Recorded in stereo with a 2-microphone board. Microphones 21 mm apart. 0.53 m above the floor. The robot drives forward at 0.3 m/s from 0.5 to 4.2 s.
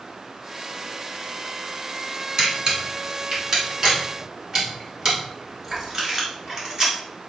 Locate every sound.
2.4 s a camera shutter: 30° right (ahead or behind), 2 m; by 6.9 s 25° right (ahead or behind), 2.5 m